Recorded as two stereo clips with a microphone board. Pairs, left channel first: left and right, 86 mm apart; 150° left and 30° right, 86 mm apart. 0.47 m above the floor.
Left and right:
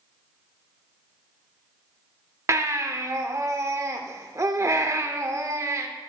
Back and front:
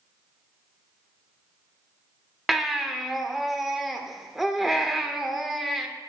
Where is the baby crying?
115° right, 0.8 m.